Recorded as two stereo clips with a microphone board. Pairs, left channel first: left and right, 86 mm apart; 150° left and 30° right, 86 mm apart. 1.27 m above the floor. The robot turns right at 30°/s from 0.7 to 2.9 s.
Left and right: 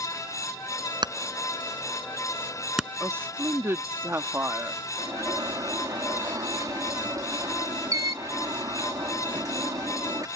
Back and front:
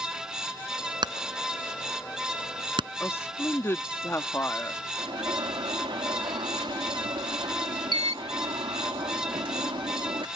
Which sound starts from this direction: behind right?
A woman speaking, at 3.0 s.